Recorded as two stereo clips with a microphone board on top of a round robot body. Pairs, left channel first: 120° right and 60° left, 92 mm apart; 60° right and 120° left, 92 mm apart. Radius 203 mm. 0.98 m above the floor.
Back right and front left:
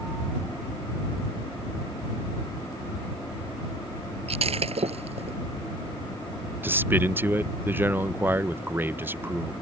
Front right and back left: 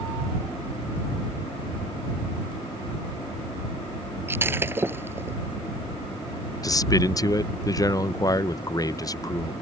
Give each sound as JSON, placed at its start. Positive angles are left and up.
{"t": 4.3, "sound": "breaking glass", "azimuth_deg": 50}
{"t": 6.6, "sound": "a man speaking", "azimuth_deg": -10}